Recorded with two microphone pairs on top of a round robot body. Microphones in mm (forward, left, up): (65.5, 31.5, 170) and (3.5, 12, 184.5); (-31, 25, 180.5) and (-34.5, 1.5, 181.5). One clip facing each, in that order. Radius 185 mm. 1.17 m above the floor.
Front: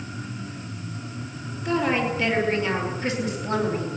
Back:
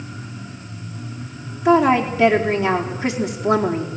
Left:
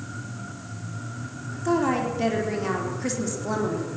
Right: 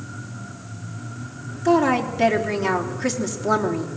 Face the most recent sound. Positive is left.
turn(degrees=-160)